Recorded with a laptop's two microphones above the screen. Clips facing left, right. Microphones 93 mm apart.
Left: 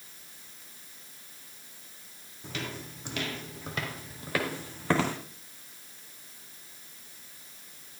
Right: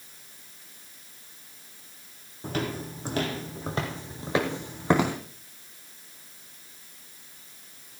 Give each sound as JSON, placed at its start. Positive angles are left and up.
{"t": 2.4, "sound": "footsteps", "side_deg": -45, "distance_m": 3.0}